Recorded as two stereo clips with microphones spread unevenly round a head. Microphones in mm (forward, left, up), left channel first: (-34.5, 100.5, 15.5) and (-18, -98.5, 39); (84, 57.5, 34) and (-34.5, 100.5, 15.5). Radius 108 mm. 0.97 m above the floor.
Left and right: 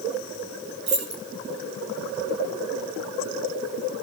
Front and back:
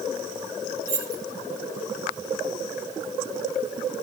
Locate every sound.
0.9 s keys jangling: 120° right, 7 m